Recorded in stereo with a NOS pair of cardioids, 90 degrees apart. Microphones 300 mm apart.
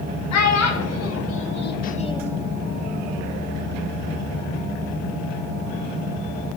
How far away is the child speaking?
About 1.3 m.